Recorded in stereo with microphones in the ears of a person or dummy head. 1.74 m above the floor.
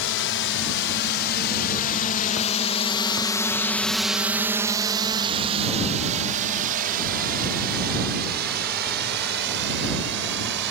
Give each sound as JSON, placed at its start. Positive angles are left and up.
{"t": 0.0, "sound": "a drone", "side_deg": 70}